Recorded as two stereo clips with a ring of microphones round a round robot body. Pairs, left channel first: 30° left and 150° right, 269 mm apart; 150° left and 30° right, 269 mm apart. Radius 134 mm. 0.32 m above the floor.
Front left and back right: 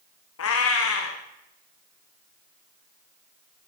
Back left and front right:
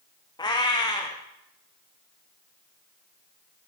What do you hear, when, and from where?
0.4 s a cat meowing: 75° left, 1.9 m